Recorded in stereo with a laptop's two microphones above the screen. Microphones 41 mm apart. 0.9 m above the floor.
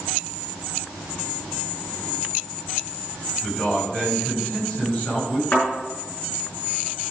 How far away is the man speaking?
About 5.5 m.